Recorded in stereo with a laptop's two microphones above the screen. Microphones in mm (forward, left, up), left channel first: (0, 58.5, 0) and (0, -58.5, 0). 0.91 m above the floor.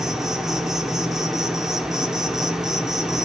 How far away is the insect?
About 1.0 m.